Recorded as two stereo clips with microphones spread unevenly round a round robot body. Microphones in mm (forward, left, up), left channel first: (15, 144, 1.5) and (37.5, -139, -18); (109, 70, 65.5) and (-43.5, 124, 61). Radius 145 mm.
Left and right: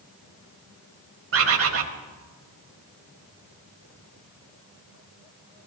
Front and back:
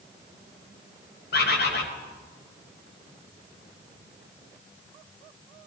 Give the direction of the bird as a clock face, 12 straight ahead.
2 o'clock.